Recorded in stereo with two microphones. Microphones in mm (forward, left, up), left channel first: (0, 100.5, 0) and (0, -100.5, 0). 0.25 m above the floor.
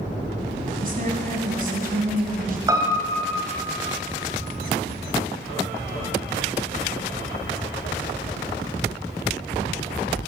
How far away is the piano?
About 1.7 m.